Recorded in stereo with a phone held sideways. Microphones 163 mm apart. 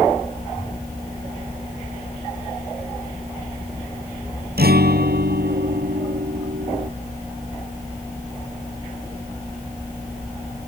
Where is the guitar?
80° right.